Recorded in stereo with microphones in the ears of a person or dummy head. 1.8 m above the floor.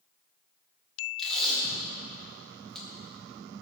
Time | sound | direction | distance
1.2 | tape being pulled | centre (ahead or behind) | 2.5 m